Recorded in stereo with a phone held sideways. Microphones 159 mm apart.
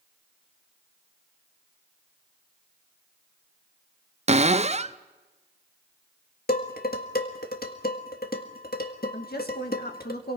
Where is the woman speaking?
80° left, 2 m.